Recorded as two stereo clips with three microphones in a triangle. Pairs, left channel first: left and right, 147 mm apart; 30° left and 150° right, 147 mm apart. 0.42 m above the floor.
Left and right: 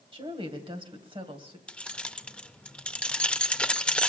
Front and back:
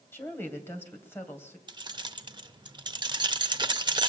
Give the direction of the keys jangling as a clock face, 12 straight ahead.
6 o'clock.